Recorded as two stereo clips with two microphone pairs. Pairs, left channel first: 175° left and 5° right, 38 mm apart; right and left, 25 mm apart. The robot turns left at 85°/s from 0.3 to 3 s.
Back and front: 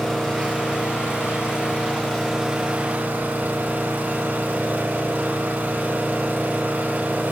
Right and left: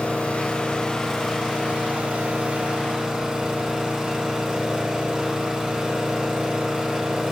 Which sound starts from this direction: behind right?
An engine running, at 0.0 s.